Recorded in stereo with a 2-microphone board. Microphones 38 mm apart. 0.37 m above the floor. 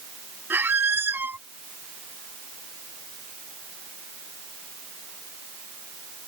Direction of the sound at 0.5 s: 80° right.